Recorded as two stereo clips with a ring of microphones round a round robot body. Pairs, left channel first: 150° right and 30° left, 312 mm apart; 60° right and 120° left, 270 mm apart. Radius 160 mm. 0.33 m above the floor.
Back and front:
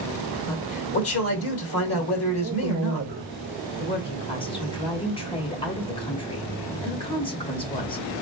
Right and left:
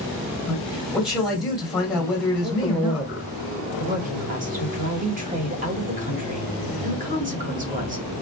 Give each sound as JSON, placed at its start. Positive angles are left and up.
{"t": 0.5, "sound": "a man speaking", "azimuth_deg": -150, "distance_m": 1.9}
{"t": 2.4, "sound": "a man speaking", "azimuth_deg": 30, "distance_m": 1.3}
{"t": 3.8, "sound": "a woman speaking", "azimuth_deg": 150, "distance_m": 1.3}